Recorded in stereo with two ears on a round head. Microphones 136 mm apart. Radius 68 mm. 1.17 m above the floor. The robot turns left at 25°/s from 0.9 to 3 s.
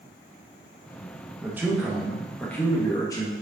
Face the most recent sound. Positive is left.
turn(degrees=155)